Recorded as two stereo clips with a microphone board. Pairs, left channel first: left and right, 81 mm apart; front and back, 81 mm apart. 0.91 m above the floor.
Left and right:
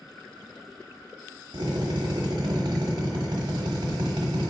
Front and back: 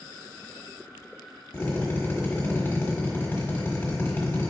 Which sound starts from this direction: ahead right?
A drill, at 1.5 s.